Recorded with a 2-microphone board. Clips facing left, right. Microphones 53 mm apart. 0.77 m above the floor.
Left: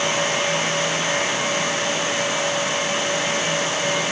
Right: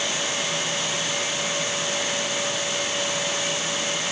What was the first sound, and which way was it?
Only background noise.